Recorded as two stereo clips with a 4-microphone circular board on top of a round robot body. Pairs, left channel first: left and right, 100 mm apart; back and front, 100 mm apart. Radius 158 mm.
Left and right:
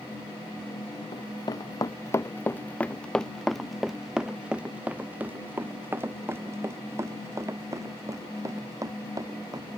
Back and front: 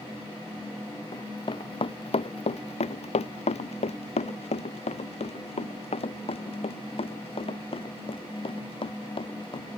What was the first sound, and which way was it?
Running footsteps, 135° left.